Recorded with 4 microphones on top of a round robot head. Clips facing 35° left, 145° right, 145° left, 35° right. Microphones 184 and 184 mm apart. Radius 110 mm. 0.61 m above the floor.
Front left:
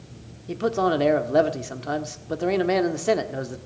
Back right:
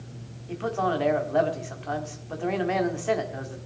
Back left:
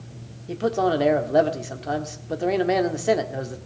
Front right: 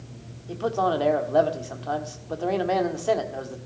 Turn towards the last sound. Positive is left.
turn(degrees=75)